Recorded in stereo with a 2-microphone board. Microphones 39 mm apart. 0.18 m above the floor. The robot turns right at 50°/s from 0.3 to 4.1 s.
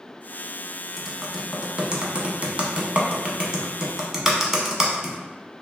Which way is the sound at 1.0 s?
Centre (ahead or behind).